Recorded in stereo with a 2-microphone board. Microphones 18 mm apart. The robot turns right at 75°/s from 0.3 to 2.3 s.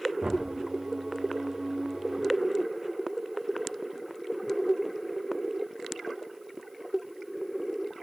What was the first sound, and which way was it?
Knocking, 40° right (ahead or behind).